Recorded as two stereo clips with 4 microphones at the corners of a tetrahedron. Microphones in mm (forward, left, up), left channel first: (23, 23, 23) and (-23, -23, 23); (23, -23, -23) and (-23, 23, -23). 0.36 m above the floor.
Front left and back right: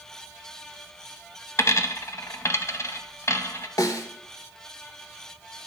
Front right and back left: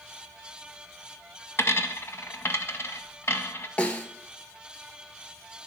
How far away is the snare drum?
About 0.9 m.